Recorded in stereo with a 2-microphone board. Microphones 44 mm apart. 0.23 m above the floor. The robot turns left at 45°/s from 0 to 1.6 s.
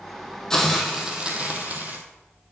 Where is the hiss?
15° left, 1.2 m; by 2.0 s 35° right, 1.2 m.